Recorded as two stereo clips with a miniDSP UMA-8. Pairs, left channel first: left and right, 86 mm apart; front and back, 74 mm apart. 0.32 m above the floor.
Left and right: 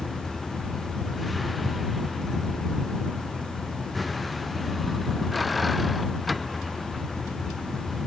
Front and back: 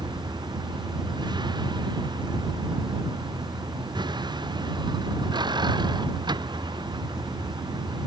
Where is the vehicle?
Straight behind.